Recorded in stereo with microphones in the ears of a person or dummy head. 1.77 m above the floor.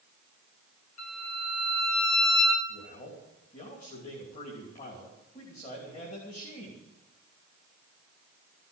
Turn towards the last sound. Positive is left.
turn(degrees=35)  # may be behind; listen again after turning